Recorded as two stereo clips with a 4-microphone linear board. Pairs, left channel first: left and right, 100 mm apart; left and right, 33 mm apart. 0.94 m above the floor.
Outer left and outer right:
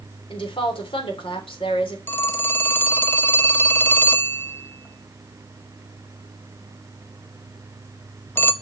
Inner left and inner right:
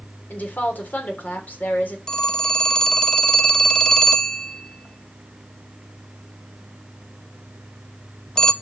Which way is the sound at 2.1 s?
20° left (ahead or behind).